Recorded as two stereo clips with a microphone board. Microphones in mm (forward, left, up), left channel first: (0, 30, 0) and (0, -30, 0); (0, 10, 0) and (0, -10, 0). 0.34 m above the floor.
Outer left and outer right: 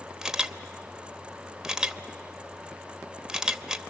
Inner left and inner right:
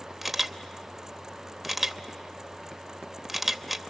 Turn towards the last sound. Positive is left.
turn(degrees=-10)  # may be behind; listen again after turning